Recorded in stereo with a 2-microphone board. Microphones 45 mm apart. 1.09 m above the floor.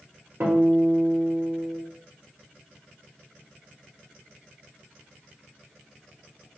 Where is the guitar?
65° right (ahead or behind), 1.5 m.